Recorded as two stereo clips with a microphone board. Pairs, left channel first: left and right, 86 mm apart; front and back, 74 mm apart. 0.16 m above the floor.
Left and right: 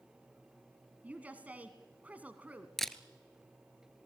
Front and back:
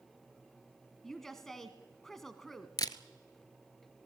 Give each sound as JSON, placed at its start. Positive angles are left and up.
{"t": 1.0, "sound": "a woman speaking", "azimuth_deg": -75, "distance_m": 1.1}
{"t": 2.8, "sound": "a camera shutter", "azimuth_deg": 5, "distance_m": 0.8}